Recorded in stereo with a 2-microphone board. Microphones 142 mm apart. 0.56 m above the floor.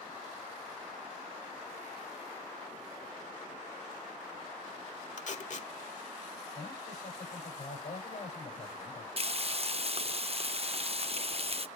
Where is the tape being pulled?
60° left (ahead or behind), 1.4 m.